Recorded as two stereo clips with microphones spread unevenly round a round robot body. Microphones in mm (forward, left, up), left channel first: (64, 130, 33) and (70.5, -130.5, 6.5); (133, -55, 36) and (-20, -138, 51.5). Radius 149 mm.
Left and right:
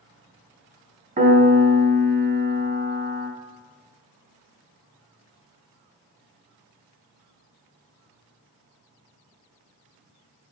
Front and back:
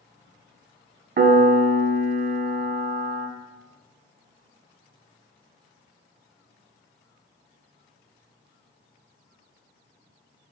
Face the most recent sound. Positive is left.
turn(degrees=-130)